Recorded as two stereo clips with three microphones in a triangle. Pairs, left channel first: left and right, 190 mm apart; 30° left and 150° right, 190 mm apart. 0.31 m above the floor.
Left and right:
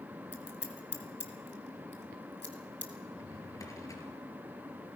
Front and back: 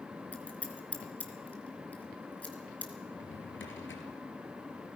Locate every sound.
0.3 s scissors: 115° left, 2.5 m
3.1 s a drawer: 15° left, 3 m